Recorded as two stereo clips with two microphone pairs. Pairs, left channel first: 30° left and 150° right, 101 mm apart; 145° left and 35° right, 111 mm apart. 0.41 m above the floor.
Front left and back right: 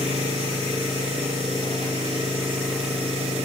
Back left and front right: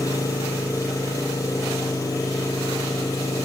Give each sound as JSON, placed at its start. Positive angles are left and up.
{"t": 0.0, "sound": "an engine running", "azimuth_deg": -155, "distance_m": 4.5}